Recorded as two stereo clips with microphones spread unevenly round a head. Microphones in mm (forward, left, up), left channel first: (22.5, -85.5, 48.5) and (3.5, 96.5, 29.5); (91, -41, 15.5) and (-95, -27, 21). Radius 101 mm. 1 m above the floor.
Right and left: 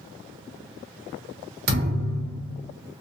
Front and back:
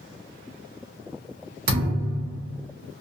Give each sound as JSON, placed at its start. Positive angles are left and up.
{"t": 1.7, "sound": "a thud", "azimuth_deg": 140, "distance_m": 0.6}